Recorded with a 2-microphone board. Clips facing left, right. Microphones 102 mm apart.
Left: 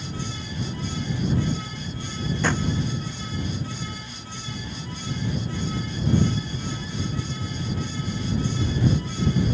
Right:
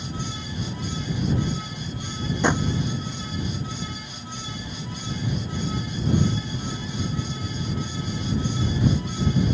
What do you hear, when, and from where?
2.4 s a drawer: 20° right (ahead or behind)